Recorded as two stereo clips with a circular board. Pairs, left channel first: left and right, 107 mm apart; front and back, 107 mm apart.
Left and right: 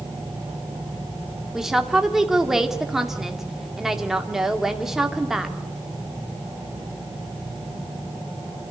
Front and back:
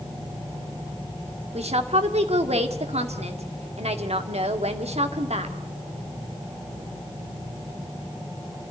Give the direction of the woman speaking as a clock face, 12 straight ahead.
6 o'clock.